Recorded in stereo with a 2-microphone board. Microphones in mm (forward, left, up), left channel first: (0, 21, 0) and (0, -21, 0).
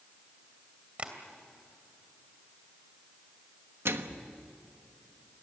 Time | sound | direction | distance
1.0 | tapping | 30° right (ahead or behind) | 2.5 m
3.9 | a microwave | 80° right | 1.2 m